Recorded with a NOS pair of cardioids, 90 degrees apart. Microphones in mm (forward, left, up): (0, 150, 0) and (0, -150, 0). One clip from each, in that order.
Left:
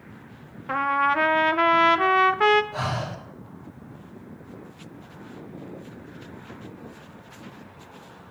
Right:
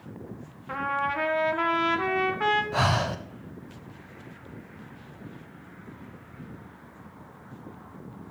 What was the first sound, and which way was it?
A trumpet, 35° left.